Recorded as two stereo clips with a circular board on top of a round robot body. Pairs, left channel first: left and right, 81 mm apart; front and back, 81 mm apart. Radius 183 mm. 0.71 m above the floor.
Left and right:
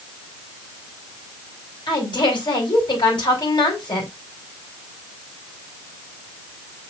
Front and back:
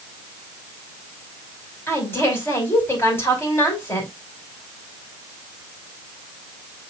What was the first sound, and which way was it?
A woman speaking, 65° left.